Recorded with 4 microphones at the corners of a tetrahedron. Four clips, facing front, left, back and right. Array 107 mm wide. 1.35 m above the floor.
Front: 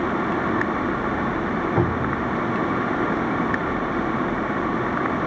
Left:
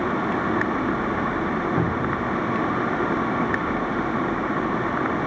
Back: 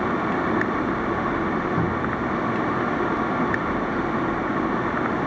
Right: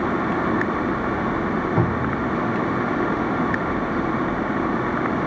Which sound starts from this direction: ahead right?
A cupboard door, at 1.8 s.